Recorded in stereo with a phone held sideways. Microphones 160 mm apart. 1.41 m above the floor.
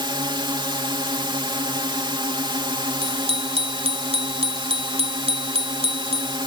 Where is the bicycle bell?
40° right (ahead or behind).